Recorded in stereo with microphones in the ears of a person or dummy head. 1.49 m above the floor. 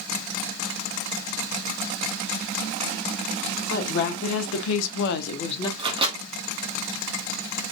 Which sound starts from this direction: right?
A microwave, at 5.8 s.